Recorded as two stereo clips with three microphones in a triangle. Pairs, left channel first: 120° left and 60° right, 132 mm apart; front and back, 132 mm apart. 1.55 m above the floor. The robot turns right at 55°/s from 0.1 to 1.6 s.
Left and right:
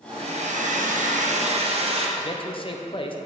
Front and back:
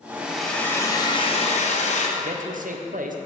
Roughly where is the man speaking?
Behind.